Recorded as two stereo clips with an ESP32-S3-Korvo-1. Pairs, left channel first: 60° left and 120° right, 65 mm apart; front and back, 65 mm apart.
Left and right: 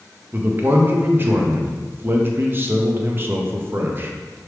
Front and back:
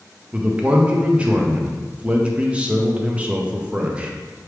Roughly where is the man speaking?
Behind right.